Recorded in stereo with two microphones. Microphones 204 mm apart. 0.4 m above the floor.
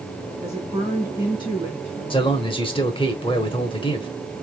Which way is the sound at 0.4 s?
10° left (ahead or behind).